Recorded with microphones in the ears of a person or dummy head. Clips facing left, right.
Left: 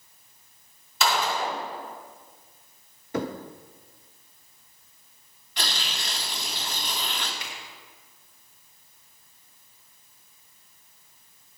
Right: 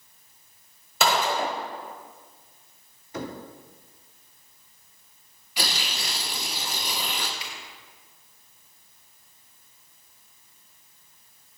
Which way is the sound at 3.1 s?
50° left (ahead or behind).